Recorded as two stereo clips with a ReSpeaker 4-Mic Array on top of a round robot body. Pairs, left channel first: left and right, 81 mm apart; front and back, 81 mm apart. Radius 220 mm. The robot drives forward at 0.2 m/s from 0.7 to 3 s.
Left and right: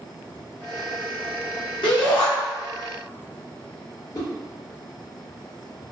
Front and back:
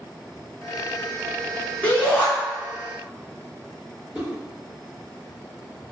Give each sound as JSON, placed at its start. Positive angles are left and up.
{"t": 1.8, "sound": "a shout", "azimuth_deg": 70, "distance_m": 1.2}
{"t": 4.1, "sound": "a whoosh", "azimuth_deg": 105, "distance_m": 1.9}